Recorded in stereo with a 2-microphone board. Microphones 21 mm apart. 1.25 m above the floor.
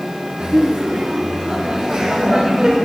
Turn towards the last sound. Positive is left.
turn(degrees=-45)  # may be behind; listen again after turning